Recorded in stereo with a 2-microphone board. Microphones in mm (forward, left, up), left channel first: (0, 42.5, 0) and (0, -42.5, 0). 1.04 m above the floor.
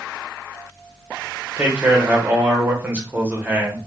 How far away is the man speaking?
About 0.8 m.